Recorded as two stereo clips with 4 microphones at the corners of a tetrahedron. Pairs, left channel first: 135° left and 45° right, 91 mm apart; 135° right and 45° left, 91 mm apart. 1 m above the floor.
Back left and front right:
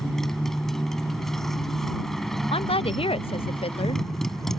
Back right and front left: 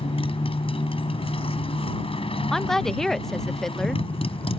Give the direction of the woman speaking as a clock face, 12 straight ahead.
7 o'clock.